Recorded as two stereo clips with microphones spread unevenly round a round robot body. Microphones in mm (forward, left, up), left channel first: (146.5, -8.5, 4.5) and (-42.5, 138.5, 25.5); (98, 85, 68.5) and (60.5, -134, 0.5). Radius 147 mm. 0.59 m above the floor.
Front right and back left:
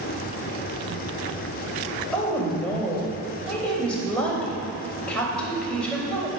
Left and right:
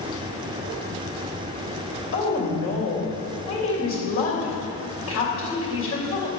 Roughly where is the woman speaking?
Ahead left.